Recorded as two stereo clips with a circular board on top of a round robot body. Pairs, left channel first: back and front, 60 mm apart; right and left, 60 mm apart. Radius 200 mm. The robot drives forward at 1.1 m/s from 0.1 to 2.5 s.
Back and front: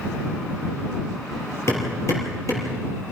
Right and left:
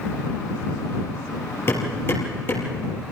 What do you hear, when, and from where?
1.7 s hammering: 140° right, 5.5 m; by 2.7 s 145° right, 6 m